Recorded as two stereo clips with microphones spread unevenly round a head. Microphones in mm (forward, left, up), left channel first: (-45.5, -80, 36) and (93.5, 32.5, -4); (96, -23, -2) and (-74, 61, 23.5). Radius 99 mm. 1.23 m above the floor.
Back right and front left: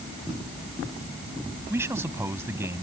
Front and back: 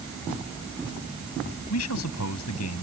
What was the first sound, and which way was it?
A man speaking, 40° right.